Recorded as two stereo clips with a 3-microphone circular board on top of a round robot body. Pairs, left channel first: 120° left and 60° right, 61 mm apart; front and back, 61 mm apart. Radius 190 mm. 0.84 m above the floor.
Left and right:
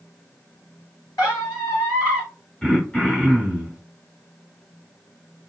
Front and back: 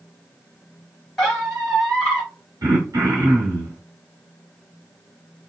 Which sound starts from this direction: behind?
Throat clearing, at 2.6 s.